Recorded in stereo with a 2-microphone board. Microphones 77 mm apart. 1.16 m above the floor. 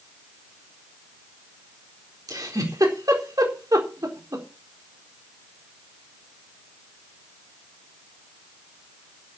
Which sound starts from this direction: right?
A giggle, at 2.3 s.